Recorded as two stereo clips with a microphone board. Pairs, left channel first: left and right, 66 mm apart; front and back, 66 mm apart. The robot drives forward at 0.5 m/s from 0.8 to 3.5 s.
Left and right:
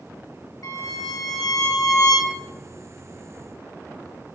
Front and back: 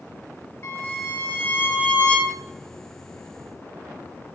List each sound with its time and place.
0.6 s a violin: 50° left, 1.7 m; by 2.4 s 75° left, 1.4 m